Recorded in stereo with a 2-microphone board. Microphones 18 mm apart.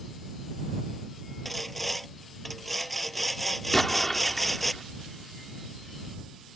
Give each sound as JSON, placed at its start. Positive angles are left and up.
{"t": 1.4, "sound": "sawing", "side_deg": 5}
{"t": 3.7, "sound": "an explosion", "side_deg": 15}